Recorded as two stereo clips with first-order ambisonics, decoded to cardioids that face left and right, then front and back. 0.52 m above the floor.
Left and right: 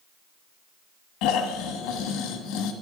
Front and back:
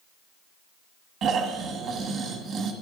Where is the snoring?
125° left, 1.1 m.